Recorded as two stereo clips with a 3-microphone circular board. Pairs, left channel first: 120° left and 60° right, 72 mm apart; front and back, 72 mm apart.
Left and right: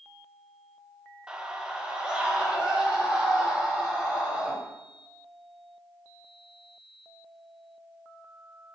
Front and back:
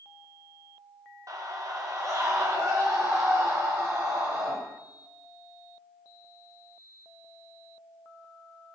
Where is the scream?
140° right, 1.0 m.